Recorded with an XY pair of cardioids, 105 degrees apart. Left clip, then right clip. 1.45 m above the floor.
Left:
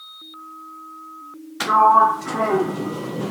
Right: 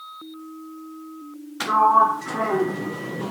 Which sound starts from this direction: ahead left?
A sliding door, at 1.6 s.